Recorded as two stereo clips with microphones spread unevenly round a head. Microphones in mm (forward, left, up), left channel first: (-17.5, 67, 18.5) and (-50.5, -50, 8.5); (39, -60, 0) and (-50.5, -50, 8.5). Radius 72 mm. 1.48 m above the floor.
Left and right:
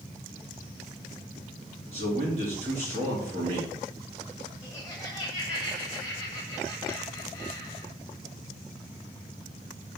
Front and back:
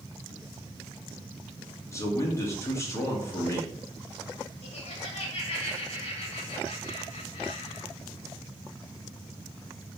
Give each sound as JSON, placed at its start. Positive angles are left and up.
{"t": 1.9, "sound": "a man speaking", "azimuth_deg": -65, "distance_m": 3.5}
{"t": 4.6, "sound": "laughter", "azimuth_deg": -15, "distance_m": 1.7}